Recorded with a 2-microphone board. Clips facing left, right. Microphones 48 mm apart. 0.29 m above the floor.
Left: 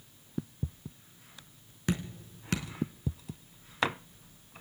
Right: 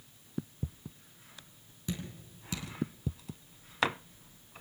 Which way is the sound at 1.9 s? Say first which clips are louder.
Left 6 dB; 60° left (ahead or behind).